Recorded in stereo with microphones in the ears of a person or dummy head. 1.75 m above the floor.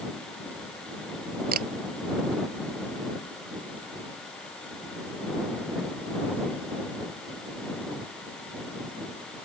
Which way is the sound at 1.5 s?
45° right (ahead or behind).